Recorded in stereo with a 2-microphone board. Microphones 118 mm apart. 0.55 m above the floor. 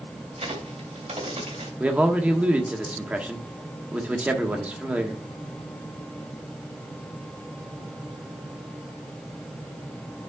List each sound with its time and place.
0.4 s a crack: 70° right (ahead or behind), 2.5 m
1.8 s a man speaking: 10° right (ahead or behind), 1.0 m